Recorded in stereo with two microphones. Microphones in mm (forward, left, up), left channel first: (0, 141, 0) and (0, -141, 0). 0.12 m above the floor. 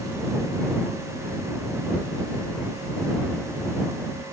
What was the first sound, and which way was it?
Only background noise.